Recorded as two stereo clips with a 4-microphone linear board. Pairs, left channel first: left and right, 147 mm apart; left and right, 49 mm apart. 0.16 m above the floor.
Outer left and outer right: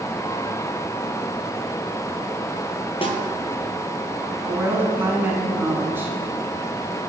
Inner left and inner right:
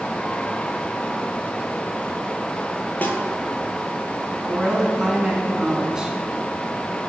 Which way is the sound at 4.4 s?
15° right (ahead or behind).